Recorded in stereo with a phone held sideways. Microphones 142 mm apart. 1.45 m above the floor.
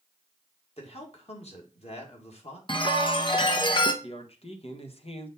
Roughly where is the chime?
Left.